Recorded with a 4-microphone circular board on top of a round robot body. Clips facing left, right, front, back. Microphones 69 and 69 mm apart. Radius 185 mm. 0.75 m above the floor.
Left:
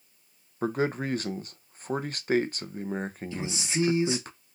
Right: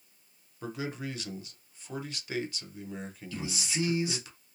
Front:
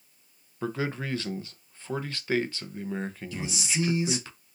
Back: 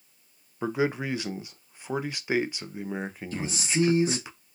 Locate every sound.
0.6 s a man speaking: 110° left, 0.6 m
3.3 s a man speaking: 150° left, 1.3 m